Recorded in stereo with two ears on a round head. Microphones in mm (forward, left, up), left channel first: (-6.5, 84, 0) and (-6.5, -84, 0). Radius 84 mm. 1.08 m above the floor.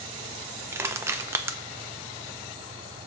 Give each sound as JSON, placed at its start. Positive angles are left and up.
{"t": 0.7, "sound": "crushing", "side_deg": -15, "distance_m": 0.6}